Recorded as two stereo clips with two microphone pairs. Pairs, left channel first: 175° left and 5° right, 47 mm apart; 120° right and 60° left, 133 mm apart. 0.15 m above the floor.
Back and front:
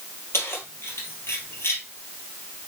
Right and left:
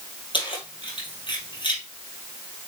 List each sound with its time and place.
0.3 s keys jangling: 170° right, 2.5 m